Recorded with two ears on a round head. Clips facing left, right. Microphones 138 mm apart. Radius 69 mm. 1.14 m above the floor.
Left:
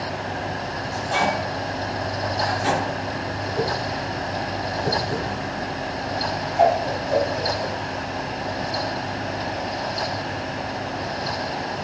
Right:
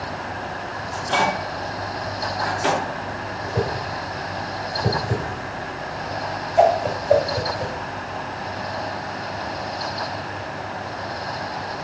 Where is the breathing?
No breathing in this recording.